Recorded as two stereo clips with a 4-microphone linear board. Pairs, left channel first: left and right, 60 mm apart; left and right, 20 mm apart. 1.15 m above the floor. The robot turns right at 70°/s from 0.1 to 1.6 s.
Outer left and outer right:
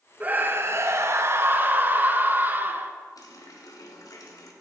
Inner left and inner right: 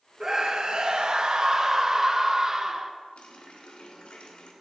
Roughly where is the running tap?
Left.